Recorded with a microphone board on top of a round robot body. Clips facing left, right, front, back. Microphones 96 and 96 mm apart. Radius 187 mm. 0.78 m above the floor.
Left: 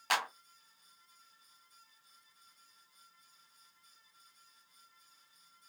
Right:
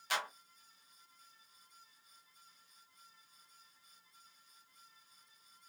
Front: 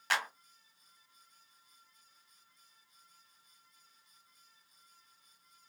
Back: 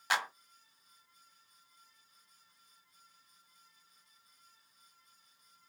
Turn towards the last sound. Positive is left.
turn(degrees=105)